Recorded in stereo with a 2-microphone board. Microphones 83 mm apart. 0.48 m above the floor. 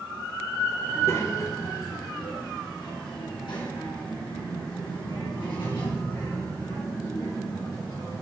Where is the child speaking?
25° left (ahead or behind), 1.1 m; by 8.2 s 80° left, 5.5 m.